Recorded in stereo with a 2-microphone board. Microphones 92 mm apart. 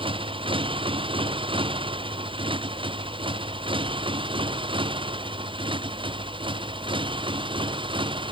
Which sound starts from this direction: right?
A motorcycle, at 0.0 s.